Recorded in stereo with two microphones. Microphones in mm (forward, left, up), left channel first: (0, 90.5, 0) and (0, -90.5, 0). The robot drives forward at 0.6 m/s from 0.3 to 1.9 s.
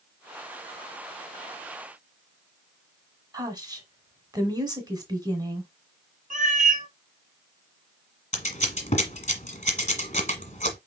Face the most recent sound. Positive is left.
turn(degrees=40)  # may be behind; listen again after turning